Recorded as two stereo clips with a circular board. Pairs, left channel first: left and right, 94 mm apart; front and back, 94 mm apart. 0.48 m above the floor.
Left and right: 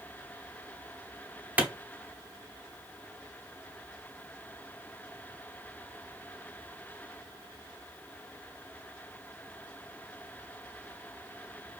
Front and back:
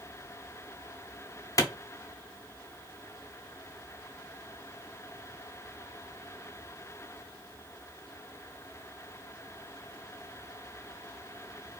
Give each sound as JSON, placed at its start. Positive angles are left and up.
{"t": 1.6, "sound": "a clap", "azimuth_deg": -25, "distance_m": 0.8}